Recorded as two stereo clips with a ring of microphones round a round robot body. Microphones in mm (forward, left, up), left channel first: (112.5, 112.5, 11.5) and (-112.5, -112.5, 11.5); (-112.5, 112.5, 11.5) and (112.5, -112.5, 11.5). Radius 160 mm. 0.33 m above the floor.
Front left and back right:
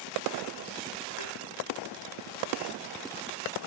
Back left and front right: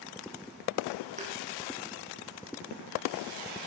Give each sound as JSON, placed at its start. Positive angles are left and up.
{"t": 1.2, "sound": "a thud", "azimuth_deg": 25, "distance_m": 5.5}